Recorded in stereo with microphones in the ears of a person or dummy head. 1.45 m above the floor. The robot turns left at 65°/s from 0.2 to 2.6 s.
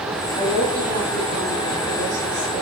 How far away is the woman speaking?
About 6.5 m.